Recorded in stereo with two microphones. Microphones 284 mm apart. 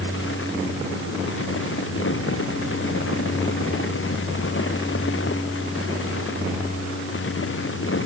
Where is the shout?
I don't hear a shout.